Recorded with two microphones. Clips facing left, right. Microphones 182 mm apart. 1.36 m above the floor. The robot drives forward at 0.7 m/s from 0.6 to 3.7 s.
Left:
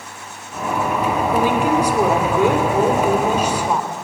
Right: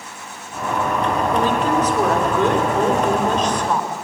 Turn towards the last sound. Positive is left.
turn(degrees=10)  # may be behind; listen again after turning